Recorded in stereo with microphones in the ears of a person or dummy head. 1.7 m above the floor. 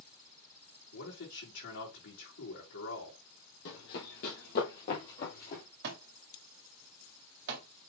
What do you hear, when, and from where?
0.9 s a man speaking: 75° left (ahead or behind), 3.5 m
3.6 s running footsteps: 55° left (ahead or behind), 3 m; by 5.6 s 40° left (ahead or behind), 2.5 m
5.8 s a thud: 45° right (ahead or behind), 2 m